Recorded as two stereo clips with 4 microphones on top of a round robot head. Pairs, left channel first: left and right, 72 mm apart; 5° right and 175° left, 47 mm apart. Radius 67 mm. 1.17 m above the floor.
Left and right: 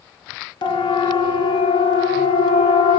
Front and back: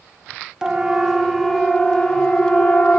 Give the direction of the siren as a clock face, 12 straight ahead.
9 o'clock.